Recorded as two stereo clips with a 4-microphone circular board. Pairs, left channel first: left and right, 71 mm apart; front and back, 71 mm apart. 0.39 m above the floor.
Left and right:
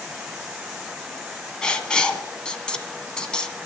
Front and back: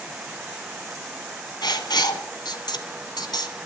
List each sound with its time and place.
1.6 s writing: 10° left, 1.7 m